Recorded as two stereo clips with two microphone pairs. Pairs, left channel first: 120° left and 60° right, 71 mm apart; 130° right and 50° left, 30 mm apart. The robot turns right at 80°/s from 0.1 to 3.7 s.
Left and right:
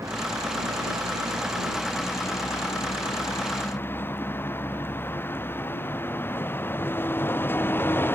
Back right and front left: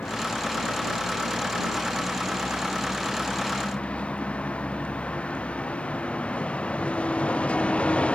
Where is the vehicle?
105° right; by 8.2 s straight behind.